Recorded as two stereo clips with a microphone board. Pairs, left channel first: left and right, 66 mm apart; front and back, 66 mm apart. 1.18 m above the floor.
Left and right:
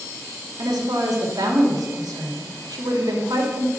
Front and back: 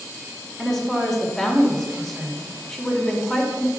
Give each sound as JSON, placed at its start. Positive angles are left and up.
{"t": 0.6, "sound": "a woman speaking", "azimuth_deg": -85, "distance_m": 2.5}